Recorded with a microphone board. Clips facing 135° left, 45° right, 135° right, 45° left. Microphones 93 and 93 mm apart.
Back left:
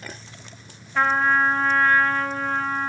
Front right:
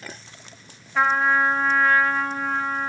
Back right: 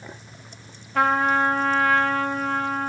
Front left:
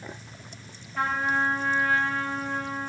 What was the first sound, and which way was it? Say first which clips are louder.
A trumpet: even, back right 6 dB; 130° right.